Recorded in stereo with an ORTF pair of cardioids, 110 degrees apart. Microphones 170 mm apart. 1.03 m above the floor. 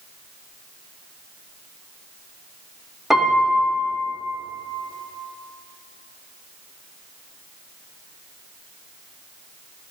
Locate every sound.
3.1 s a piano: straight ahead, 2.5 m